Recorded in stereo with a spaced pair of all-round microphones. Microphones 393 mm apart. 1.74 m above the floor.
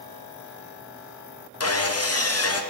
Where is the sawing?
40° left (ahead or behind), 0.8 m.